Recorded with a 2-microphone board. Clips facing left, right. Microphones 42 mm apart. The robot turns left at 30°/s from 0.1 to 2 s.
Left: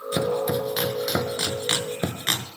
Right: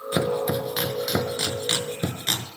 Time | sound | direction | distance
0.1 | chopping | 20° right (ahead or behind) | 0.8 m